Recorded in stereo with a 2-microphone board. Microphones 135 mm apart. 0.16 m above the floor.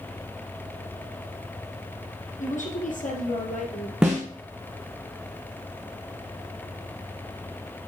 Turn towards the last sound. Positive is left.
turn(degrees=-5)  # may be behind; listen again after turning